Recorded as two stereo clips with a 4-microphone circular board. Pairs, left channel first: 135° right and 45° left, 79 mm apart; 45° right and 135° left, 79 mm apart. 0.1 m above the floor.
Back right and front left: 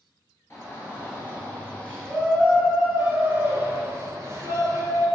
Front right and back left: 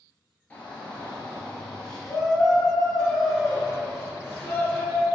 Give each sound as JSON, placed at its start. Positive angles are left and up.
{"t": 0.5, "sound": "a shout", "azimuth_deg": -110, "distance_m": 1.9}